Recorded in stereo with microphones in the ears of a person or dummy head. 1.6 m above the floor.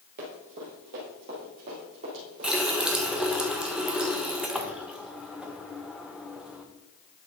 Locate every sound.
0.2 s running footsteps: 50° right (ahead or behind), 2.5 m; by 3.4 s 55° right (ahead or behind), 4 m
2.4 s a running tap: centre (ahead or behind), 0.7 m